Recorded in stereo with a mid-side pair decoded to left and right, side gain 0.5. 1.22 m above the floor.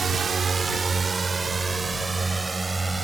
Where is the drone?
40° right; by 3.0 s 20° right.